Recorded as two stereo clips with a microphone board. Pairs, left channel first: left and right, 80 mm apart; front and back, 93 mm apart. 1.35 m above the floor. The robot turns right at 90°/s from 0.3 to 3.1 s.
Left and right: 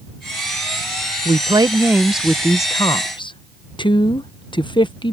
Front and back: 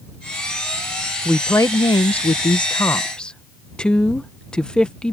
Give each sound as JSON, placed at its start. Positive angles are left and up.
{"t": 1.2, "sound": "a woman speaking", "azimuth_deg": -85}